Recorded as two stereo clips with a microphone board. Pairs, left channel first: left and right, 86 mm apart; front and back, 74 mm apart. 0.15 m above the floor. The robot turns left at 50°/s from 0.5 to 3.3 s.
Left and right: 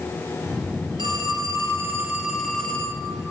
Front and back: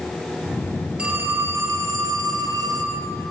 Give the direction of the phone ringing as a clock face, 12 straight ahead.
4 o'clock.